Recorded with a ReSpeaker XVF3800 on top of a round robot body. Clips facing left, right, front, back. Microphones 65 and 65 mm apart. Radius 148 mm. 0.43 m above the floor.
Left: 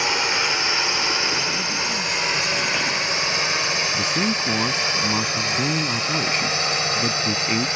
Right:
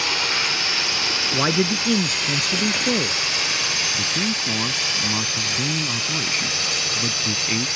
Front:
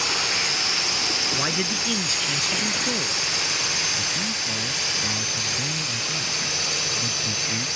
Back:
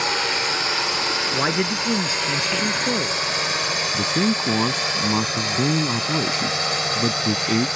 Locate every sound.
0.0 s a drone: 150° left; by 7.8 s 145° left
1.3 s a man speaking: 120° right
3.9 s a man speaking: 170° left